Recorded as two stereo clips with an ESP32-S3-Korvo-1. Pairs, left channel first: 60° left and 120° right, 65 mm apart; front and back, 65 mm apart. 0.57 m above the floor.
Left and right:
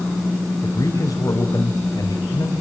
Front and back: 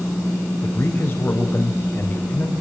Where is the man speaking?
45° left, 3.5 m.